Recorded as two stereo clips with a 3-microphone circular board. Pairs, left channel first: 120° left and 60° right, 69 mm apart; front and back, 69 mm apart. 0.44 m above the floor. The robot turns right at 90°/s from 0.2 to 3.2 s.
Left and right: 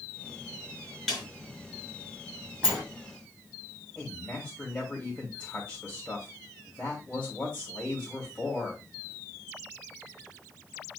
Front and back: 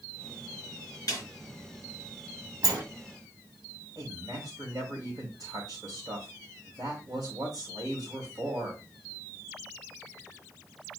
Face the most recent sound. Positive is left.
turn(degrees=-170)